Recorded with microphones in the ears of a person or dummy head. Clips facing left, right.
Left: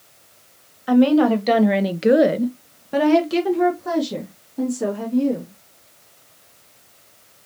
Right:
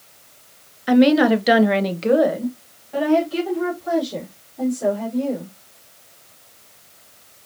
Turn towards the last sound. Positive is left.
turn(degrees=75)  # may be behind; listen again after turning